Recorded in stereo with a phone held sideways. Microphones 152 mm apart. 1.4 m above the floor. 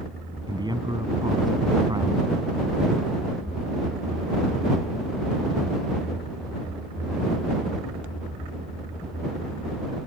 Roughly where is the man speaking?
Right.